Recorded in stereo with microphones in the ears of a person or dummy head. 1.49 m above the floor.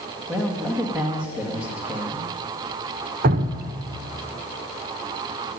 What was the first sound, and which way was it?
A man speaking, 5° right (ahead or behind).